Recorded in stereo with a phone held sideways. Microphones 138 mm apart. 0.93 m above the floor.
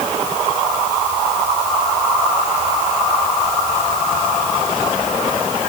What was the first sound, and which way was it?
Only background noise.